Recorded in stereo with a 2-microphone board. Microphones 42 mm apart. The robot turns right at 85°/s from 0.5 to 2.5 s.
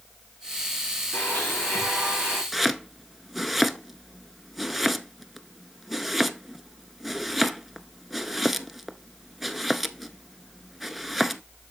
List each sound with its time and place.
1.1 s a blender: 120° left, 5.5 m; by 2.4 s 130° right, 5.5 m
2.5 s chopping: 5° right (ahead or behind), 0.6 m